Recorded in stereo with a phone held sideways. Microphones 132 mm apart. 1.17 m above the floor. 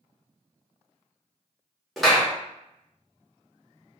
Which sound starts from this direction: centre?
A clap, at 2.0 s.